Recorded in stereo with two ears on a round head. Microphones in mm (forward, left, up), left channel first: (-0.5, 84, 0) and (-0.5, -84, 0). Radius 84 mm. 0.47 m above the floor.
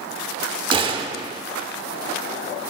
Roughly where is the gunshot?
Right.